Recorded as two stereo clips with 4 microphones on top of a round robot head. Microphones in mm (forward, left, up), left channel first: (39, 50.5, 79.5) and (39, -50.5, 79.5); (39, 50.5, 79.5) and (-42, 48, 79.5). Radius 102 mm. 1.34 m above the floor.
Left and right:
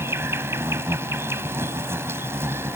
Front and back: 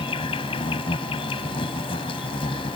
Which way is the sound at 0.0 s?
25° right.